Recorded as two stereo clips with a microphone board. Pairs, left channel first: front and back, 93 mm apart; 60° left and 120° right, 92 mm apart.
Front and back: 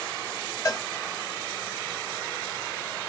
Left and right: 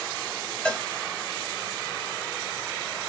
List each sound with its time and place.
0.7 s a cowbell: 15° right, 0.7 m